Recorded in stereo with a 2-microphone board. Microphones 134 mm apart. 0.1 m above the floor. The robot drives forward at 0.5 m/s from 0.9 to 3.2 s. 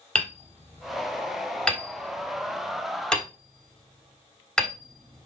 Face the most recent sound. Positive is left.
turn(degrees=5)  # may be behind; listen again after turning